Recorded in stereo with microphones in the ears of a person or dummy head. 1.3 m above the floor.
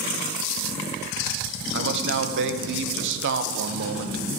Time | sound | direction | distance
1.7 | a man speaking | 65° right (ahead or behind) | 0.7 m